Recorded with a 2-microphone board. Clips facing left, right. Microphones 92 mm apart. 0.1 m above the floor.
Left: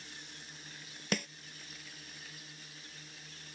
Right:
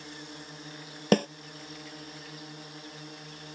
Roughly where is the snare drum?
Right.